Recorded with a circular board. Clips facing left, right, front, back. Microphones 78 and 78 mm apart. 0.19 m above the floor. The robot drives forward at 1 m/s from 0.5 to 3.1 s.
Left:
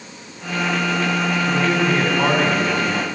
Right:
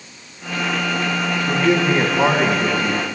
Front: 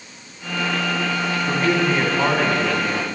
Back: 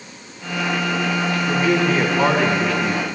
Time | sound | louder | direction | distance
1.5 | a man speaking | right 4 dB, back 1 dB | 40° right | 1.3 m